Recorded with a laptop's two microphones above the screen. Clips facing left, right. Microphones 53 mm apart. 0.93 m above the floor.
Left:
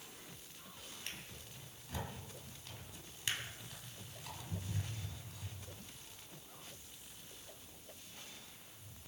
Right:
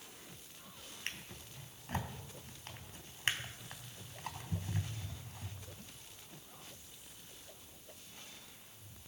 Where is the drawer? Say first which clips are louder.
Right 6 dB; 45° right (ahead or behind), 2.5 m.